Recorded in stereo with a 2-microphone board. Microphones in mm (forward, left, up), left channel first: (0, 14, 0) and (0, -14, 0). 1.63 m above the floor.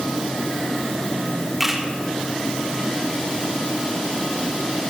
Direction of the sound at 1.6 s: 15° right (ahead or behind).